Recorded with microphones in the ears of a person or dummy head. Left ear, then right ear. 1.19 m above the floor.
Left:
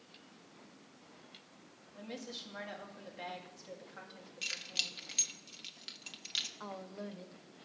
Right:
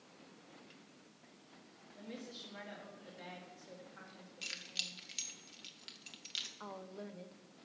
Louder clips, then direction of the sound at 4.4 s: Left 5 dB; 10° left (ahead or behind).